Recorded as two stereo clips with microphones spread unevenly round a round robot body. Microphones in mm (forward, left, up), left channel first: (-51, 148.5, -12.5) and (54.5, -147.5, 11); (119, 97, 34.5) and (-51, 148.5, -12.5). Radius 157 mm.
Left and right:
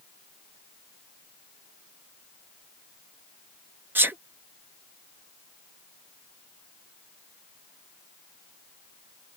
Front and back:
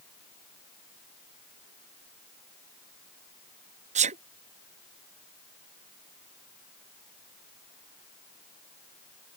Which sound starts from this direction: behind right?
A sneeze, at 4.0 s.